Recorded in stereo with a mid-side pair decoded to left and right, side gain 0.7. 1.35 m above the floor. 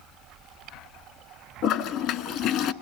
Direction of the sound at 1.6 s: 55° left.